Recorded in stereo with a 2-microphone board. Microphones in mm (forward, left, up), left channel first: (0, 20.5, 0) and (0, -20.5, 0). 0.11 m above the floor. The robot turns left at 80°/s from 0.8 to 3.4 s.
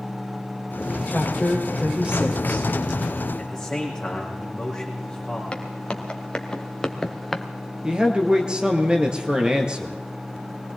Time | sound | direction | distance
1.1 | a woman speaking | 55° left | 4.5 m
3.4 | a man speaking | 15° left (ahead or behind) | 5.5 m
5.5 | footsteps | 25° left (ahead or behind) | 2.5 m
7.8 | a man speaking | 25° right (ahead or behind) | 1.8 m